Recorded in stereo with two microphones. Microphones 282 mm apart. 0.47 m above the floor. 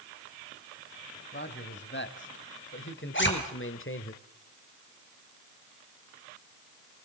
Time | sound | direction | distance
1.3 | a man speaking | 40° left (ahead or behind) | 3 m
3.1 | a zipper | 45° left (ahead or behind) | 4.5 m